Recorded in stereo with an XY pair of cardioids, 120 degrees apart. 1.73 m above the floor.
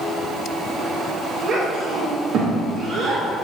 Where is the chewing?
No chewing in this recording.